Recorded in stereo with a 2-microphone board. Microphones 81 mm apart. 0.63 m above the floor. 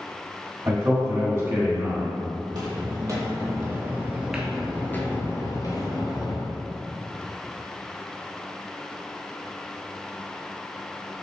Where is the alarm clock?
No alarm clock in this recording.